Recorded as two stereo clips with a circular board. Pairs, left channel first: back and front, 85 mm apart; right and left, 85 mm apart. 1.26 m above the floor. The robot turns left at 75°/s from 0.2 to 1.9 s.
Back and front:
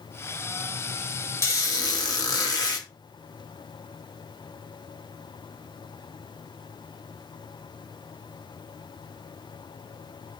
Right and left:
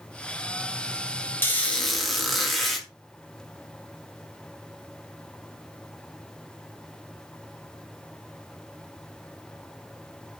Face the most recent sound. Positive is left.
turn(degrees=180)